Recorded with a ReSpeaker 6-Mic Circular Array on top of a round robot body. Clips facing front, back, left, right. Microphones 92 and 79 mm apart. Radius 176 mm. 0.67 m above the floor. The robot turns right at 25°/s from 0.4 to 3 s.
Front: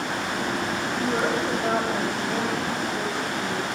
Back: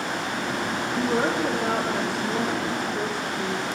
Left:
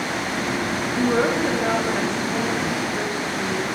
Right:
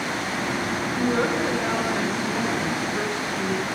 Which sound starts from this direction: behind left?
A woman speaking, at 0.9 s.